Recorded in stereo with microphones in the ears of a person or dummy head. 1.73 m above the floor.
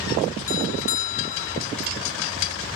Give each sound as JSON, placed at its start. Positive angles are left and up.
{"t": 0.5, "sound": "a doorbell", "side_deg": 45}